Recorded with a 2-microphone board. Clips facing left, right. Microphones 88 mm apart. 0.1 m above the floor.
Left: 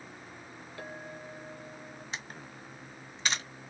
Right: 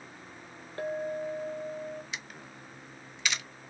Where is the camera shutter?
35° left (ahead or behind), 0.6 m.